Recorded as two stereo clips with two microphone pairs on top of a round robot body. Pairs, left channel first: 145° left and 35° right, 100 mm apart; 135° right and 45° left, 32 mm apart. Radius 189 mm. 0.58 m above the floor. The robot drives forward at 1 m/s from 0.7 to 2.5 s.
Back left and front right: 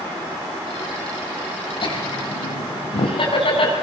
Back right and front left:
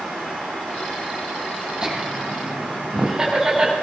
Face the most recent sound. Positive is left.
turn(degrees=115)